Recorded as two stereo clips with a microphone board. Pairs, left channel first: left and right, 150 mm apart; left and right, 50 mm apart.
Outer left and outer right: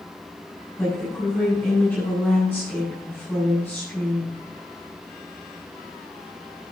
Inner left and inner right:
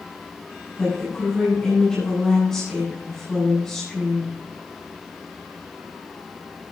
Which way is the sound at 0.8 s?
15° left (ahead or behind).